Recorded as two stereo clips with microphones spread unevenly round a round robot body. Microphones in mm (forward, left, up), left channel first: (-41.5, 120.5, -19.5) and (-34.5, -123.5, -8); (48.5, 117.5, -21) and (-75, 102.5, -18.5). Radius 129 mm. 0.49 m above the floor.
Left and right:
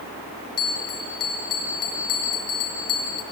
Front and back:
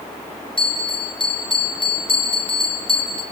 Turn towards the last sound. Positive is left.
turn(degrees=55)